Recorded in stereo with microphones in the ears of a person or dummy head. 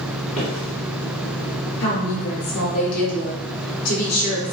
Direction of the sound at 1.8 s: 80° left.